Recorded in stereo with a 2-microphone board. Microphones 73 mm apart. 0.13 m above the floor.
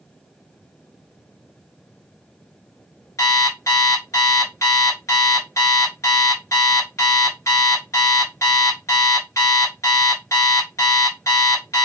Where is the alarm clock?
45° left (ahead or behind), 1.2 m.